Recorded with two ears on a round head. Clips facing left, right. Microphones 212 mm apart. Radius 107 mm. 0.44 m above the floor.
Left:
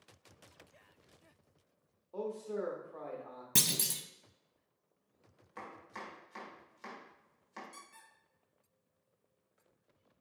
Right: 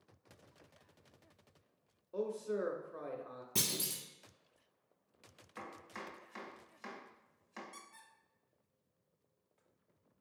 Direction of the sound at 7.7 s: 15° left (ahead or behind).